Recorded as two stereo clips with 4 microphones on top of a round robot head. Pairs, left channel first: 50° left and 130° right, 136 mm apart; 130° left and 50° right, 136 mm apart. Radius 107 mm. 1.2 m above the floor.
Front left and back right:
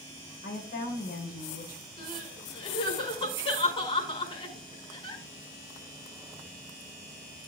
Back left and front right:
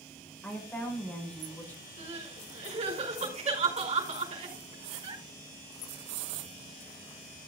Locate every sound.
0.4 s a woman speaking: 55° left, 5 m
2.0 s crying: 5° right, 5.5 m